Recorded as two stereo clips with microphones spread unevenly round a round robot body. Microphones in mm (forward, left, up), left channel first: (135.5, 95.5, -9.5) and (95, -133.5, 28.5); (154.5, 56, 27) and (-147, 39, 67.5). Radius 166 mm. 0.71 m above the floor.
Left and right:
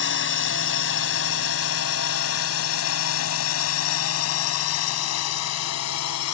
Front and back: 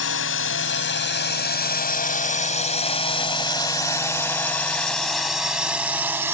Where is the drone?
50° left; by 6.3 s 100° left.